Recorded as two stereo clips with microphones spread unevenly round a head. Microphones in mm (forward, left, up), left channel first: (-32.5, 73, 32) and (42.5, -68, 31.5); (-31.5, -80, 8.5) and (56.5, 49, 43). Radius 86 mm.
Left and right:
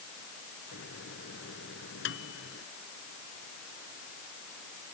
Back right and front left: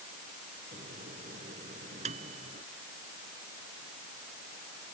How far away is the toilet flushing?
I don't hear a toilet flushing.